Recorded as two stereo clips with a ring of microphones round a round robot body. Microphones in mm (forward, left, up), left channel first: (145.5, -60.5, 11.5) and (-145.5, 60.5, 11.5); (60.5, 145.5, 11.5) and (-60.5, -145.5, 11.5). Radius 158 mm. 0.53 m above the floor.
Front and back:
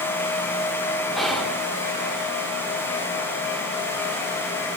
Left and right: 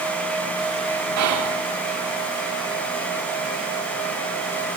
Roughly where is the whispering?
Behind right.